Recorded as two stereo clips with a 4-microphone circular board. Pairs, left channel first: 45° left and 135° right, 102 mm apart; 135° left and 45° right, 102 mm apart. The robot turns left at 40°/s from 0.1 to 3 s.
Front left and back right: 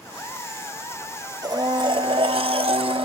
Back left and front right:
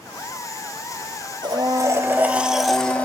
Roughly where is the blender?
Right.